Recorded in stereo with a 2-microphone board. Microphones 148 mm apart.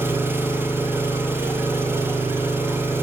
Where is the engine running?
15° right (ahead or behind), 4 m.